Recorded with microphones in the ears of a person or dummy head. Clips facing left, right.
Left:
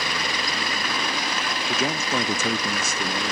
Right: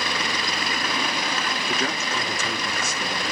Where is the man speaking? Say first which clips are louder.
Left 4 dB; 5° right (ahead or behind), 0.6 m; by 3.3 s 75° left (ahead or behind), 1.3 m.